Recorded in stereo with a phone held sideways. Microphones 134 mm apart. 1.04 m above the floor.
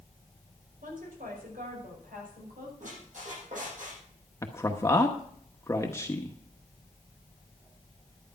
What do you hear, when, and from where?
0.8 s a woman speaking: 85° right, 5.5 m
2.8 s a squeak: 70° right (ahead or behind), 8.5 m
4.4 s a man speaking: 20° left (ahead or behind), 1.0 m